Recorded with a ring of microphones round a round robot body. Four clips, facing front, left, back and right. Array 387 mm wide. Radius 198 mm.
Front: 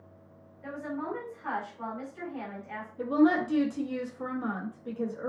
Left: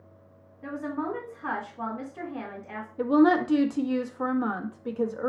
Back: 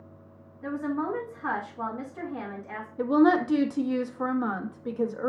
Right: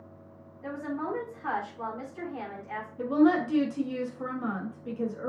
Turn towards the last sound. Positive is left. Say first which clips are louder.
# left 3 dB, back 3 dB
turn(degrees=140)